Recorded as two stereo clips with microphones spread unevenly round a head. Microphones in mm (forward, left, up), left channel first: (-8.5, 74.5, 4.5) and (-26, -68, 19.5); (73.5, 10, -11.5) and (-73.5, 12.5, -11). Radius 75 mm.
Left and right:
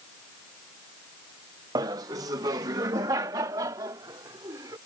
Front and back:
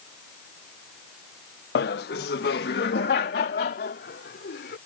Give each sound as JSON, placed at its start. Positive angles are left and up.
{"t": 1.8, "sound": "laughter", "azimuth_deg": -30}